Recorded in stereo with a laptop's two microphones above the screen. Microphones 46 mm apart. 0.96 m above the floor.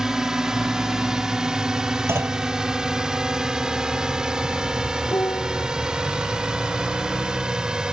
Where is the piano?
75° left (ahead or behind).